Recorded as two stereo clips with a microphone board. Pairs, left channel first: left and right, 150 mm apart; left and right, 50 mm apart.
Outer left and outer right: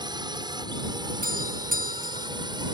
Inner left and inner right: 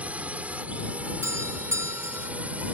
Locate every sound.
0.0 s a drone: 30° right (ahead or behind)
1.2 s a doorbell: 70° right (ahead or behind)